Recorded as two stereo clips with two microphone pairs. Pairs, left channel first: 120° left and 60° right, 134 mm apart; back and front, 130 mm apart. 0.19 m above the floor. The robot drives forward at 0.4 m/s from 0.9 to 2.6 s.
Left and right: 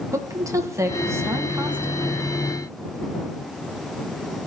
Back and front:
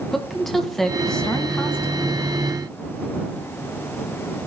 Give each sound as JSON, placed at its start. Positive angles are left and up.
{"t": 0.1, "sound": "a woman speaking", "azimuth_deg": -95, "distance_m": 1.2}